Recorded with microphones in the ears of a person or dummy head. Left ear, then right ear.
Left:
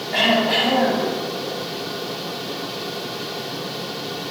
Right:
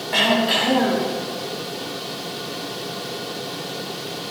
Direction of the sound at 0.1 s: 80° right.